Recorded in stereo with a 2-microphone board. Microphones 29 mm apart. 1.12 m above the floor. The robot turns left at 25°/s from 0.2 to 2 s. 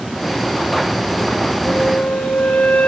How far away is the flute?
About 2.5 m.